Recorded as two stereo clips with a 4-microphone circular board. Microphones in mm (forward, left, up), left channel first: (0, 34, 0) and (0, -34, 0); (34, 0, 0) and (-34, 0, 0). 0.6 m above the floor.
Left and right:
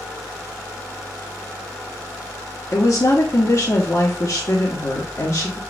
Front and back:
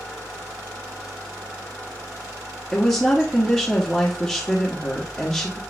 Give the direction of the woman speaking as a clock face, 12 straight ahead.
9 o'clock.